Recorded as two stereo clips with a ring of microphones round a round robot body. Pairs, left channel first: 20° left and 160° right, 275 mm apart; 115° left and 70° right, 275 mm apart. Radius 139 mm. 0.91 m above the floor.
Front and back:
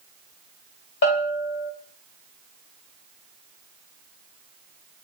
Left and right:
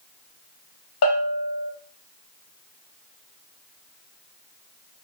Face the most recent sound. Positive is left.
turn(degrees=70)